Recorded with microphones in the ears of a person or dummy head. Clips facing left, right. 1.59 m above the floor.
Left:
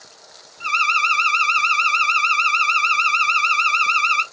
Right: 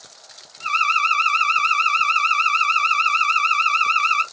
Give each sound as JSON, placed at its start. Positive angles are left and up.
{"t": 0.6, "sound": "an alarm", "side_deg": 40, "distance_m": 1.0}